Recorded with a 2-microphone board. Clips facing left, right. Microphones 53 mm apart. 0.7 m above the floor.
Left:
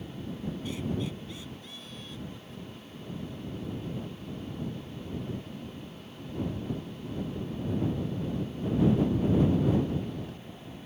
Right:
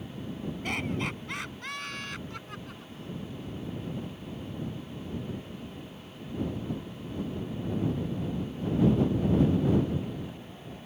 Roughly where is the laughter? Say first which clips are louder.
Right 3 dB; right.